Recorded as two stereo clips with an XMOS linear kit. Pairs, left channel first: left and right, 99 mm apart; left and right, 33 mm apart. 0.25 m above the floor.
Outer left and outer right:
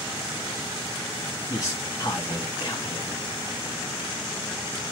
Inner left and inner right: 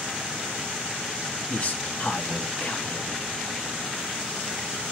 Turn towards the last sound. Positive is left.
turn(degrees=35)  # may be behind; listen again after turning